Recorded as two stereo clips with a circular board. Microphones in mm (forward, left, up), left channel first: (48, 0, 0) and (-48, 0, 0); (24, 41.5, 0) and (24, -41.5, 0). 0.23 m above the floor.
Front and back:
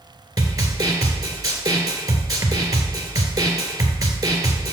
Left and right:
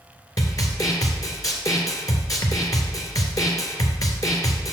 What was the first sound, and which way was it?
A snare drum, 130° left.